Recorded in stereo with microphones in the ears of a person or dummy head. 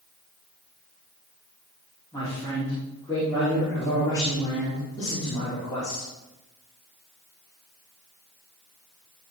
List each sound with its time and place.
2.1 s a man speaking: 20° left (ahead or behind), 5.5 m